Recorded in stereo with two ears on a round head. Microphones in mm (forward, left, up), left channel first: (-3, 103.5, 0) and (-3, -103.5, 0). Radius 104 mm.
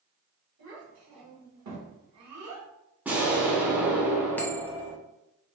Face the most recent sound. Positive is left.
turn(degrees=10)  # may be behind; listen again after turning